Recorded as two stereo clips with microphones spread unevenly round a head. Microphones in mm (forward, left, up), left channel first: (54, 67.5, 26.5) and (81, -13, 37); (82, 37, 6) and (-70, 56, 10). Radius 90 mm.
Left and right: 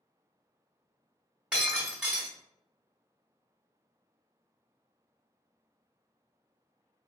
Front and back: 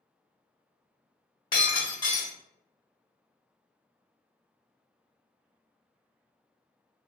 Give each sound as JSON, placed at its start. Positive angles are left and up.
{"t": 1.5, "sound": "breaking glass", "azimuth_deg": -15, "distance_m": 1.2}